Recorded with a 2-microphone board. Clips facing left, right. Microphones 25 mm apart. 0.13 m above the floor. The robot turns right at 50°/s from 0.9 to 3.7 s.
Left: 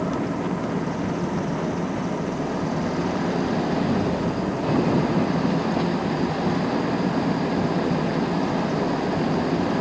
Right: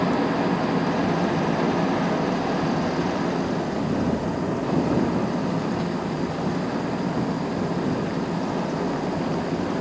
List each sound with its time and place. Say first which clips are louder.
0.0 s an engine running: right 3 dB; 120° right; by 9.8 s 20° left